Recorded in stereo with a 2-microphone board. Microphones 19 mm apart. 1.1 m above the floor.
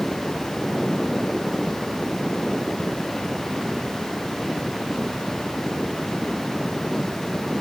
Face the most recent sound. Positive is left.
No sound to turn to.